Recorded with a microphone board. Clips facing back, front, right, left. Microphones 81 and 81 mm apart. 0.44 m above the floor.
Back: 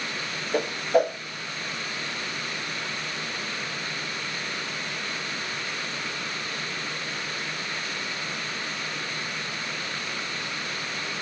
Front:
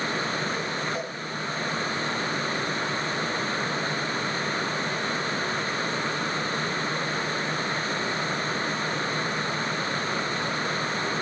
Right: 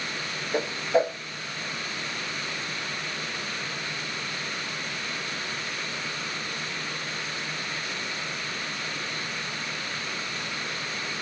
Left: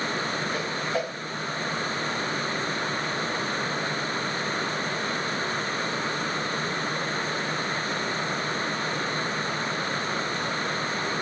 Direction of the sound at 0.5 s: 155° right.